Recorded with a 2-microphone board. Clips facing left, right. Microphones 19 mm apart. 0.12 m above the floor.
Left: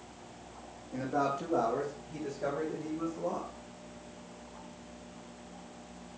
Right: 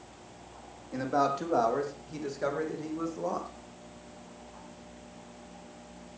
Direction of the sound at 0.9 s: 75° right (ahead or behind).